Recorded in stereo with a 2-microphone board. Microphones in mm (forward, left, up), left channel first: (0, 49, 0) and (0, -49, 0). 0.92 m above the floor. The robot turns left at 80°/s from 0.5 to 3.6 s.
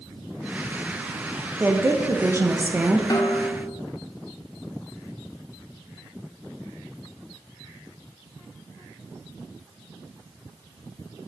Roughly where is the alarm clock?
No alarm clock in this recording.